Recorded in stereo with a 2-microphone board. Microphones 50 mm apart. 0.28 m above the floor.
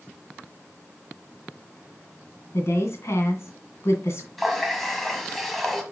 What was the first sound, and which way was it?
A woman speaking, 65° left (ahead or behind).